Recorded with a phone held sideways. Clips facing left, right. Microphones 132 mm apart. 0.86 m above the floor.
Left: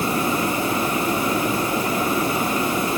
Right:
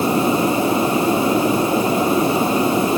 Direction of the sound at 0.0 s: 25° right (ahead or behind).